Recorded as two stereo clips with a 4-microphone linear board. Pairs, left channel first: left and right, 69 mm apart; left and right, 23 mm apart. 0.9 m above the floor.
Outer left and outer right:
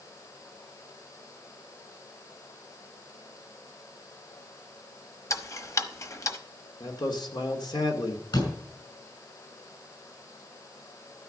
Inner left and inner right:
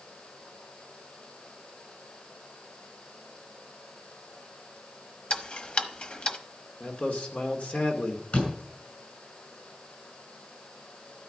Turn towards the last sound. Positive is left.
turn(degrees=70)  # may be behind; listen again after turning